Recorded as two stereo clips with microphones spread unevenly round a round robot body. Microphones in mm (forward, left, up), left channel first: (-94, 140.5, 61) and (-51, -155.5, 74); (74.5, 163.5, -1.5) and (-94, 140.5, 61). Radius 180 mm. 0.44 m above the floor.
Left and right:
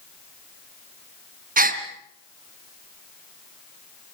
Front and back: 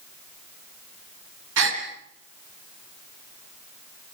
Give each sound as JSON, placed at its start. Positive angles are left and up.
{"t": 1.6, "sound": "a gasp", "azimuth_deg": -145, "distance_m": 3.0}